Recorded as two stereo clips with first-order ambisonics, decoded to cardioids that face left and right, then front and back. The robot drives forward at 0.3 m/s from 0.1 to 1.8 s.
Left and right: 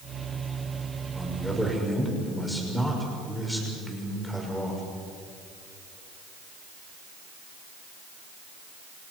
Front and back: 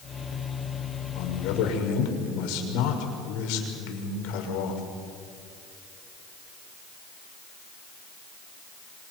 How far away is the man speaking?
About 6 m.